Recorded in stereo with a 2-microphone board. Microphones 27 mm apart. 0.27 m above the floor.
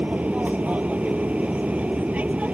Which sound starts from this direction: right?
An aircraft, at 0.0 s.